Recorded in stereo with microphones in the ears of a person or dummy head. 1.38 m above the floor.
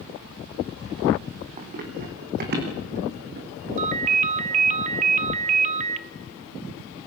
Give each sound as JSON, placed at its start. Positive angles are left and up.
{"t": 1.6, "sound": "running footsteps", "side_deg": -45, "distance_m": 5.0}
{"t": 3.8, "sound": "a ringtone", "side_deg": -40, "distance_m": 1.2}